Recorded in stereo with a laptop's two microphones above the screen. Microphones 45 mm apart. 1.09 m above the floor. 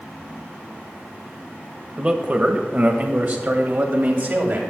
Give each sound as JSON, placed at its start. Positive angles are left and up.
{"t": 2.0, "sound": "a man speaking", "side_deg": -25, "distance_m": 1.2}